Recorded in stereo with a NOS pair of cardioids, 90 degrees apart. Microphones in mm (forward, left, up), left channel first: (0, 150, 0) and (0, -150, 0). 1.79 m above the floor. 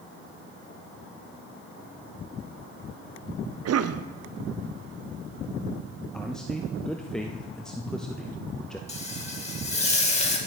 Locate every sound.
3.6 s a cough: 55° right, 0.9 m
6.1 s a man speaking: straight ahead, 0.9 m
8.9 s frying: 20° left, 2.5 m